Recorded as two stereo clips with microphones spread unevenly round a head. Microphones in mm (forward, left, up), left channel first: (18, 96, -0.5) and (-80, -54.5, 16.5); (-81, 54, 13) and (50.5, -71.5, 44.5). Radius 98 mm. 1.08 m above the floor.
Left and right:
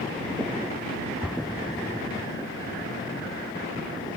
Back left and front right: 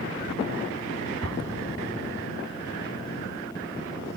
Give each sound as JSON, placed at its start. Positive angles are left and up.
{"t": 1.2, "sound": "an explosion", "azimuth_deg": -35}